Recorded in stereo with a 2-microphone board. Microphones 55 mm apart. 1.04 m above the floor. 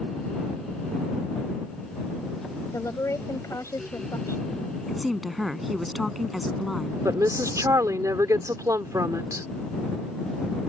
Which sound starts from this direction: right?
A woman speaking, at 7.0 s.